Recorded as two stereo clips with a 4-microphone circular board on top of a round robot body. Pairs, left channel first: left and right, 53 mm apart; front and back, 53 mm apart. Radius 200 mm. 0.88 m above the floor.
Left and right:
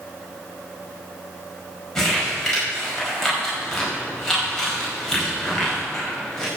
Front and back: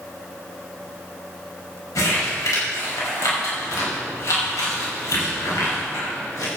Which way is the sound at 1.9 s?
10° left.